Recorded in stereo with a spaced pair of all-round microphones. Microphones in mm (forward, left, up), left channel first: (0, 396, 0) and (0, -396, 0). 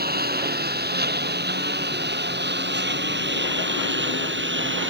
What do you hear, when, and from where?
0.0 s a lawn mower: 10° right (ahead or behind); by 4.9 s 15° right (ahead or behind)